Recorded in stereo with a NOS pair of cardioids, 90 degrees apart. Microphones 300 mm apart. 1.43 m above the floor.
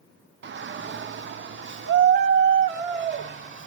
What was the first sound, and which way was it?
A shout, 40° right.